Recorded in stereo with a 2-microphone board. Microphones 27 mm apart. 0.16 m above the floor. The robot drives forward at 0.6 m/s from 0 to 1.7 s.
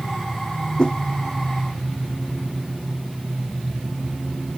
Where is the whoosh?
35° left (ahead or behind).